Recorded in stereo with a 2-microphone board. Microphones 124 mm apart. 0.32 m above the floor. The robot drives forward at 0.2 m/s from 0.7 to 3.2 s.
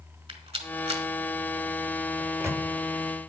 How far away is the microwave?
About 0.8 m.